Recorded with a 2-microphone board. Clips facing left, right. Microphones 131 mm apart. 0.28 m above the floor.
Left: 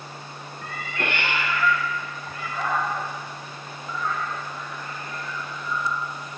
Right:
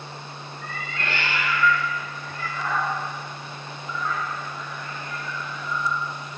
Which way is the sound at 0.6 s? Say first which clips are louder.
Left 3 dB; 80° left.